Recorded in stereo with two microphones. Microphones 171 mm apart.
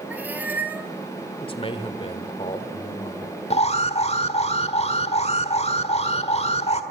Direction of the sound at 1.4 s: 30° left (ahead or behind).